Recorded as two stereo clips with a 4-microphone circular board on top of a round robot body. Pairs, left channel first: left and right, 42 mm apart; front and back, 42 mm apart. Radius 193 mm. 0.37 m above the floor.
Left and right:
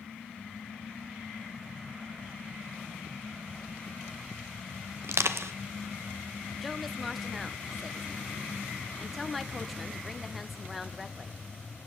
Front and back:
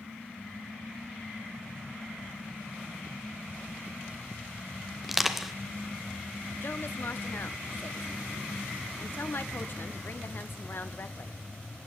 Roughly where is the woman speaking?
Ahead.